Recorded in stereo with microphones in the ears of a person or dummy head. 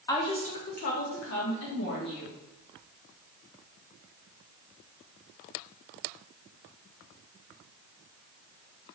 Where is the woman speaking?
20° left (ahead or behind), 0.9 m; by 2.4 s 80° left, 1.9 m.